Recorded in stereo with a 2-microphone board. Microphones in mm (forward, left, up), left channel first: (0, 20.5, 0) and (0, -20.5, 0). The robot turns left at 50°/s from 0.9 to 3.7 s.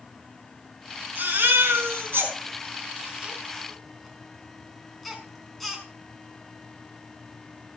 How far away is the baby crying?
About 5 m.